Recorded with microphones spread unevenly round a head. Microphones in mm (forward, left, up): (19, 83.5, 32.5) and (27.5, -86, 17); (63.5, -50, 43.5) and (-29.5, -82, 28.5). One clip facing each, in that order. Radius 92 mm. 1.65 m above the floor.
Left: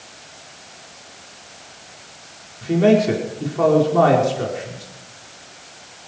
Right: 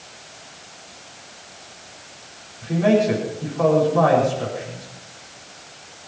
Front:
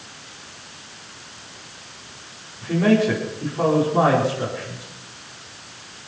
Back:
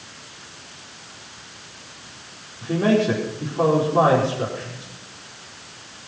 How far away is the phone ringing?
I don't hear a phone ringing.